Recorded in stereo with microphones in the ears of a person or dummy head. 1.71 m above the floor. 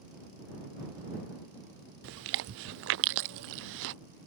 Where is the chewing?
70° right (ahead or behind).